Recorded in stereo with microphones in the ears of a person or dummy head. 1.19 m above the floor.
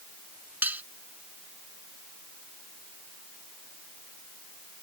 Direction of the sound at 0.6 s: 10° right (ahead or behind).